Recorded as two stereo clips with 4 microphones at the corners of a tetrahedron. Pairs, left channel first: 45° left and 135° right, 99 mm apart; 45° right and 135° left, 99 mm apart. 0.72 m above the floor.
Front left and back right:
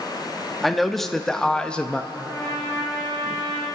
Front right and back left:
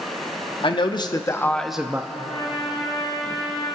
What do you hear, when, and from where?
0.6 s a man speaking: 45° right, 1.1 m; by 2.0 s 115° left, 0.6 m
2.1 s a trumpet: 20° right, 5.5 m